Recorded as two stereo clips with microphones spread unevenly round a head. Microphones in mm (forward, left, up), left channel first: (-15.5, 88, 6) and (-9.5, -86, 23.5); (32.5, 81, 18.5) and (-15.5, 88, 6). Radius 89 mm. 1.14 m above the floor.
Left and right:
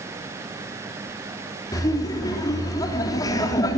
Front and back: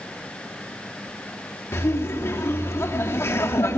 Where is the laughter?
20° left, 3 m.